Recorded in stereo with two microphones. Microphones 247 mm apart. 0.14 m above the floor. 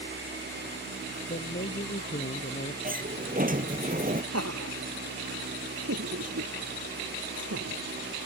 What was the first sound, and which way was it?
A man speaking, 35° left (ahead or behind).